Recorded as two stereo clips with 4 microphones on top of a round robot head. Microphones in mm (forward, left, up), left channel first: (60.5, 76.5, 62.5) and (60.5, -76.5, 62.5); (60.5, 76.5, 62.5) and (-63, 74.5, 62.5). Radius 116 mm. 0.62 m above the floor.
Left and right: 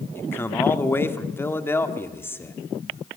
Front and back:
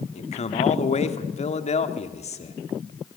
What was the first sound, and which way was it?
A man speaking, 15° left.